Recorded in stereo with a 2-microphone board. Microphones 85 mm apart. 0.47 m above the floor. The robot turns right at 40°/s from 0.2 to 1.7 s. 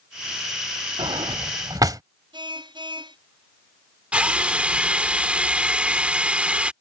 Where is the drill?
15° right (ahead or behind).